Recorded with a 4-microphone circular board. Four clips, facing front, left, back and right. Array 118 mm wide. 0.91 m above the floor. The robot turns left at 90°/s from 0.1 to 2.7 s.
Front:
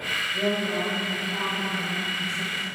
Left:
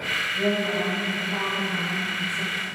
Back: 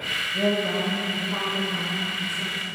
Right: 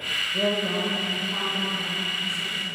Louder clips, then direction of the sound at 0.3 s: Even, back 3 dB; 85° right.